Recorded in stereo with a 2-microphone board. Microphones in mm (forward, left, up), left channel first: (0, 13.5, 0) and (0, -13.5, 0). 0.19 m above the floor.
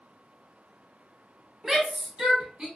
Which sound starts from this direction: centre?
A shout, at 1.6 s.